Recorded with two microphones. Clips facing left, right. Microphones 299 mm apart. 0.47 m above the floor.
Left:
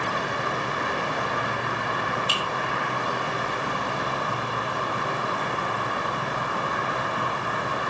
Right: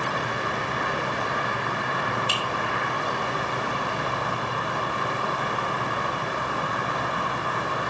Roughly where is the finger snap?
Right.